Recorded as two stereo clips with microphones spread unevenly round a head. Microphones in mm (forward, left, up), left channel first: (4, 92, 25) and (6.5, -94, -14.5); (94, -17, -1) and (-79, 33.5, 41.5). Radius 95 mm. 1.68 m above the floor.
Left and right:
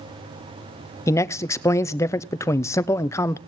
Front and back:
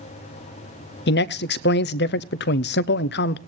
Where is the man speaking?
15° left, 0.6 m.